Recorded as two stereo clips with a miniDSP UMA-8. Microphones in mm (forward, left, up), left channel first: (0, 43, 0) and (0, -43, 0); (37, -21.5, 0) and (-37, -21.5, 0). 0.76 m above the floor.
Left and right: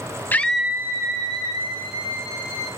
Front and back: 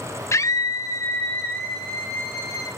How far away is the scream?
About 0.6 m.